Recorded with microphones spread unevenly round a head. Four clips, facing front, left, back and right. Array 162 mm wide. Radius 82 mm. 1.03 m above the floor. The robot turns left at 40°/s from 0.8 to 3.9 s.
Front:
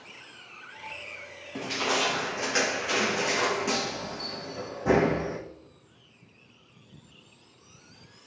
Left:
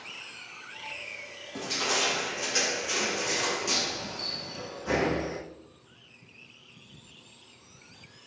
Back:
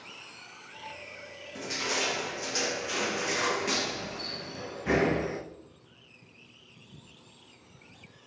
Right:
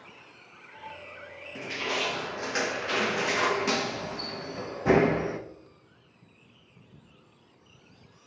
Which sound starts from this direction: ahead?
Crushing, at 1.6 s.